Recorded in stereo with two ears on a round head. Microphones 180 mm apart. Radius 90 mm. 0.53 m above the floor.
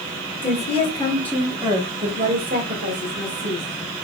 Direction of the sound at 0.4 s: 40° left (ahead or behind).